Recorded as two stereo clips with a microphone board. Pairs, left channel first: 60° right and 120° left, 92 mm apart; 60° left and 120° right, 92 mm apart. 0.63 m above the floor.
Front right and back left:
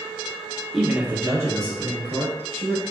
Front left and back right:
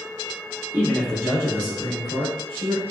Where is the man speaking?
145° right, 0.6 m; by 2.8 s 75° left, 1.6 m.